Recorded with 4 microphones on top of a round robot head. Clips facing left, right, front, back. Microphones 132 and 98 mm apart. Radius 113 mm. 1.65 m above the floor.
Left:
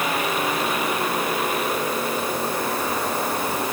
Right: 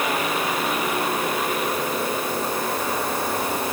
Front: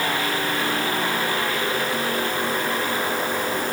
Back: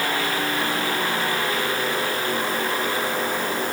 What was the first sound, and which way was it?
Only background noise.